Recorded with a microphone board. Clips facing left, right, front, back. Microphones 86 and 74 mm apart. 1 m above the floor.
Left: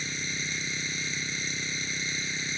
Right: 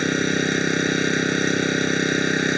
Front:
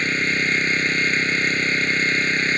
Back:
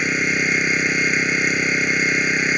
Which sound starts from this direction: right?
An engine running, at 0.0 s.